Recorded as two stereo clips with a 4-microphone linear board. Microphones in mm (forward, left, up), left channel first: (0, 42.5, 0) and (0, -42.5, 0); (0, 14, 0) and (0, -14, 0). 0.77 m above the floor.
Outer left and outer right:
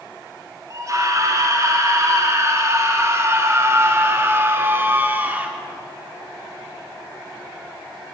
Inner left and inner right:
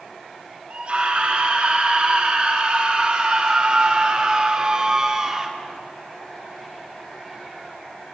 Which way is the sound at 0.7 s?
40° right (ahead or behind).